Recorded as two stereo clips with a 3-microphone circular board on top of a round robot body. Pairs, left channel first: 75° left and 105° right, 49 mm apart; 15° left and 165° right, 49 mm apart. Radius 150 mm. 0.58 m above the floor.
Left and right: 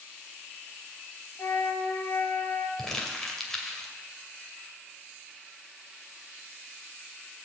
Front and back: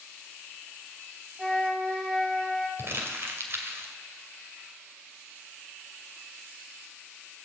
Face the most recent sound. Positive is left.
turn(degrees=155)